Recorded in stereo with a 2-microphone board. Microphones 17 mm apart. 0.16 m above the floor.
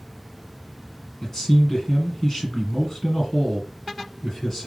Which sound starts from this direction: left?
A man speaking, at 1.2 s.